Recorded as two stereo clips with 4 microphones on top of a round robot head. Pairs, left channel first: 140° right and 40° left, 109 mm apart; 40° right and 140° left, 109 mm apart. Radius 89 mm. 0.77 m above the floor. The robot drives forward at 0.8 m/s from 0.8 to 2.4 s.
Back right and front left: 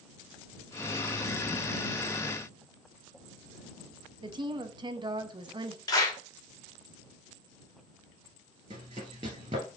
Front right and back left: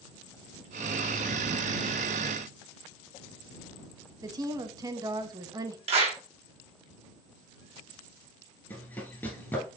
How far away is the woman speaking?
About 0.7 m.